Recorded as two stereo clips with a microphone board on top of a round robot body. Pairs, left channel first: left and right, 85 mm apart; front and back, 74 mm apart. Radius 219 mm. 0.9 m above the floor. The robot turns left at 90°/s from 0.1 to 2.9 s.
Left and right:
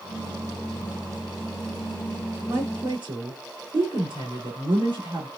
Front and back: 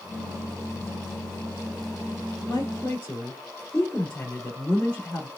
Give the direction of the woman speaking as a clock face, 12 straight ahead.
1 o'clock.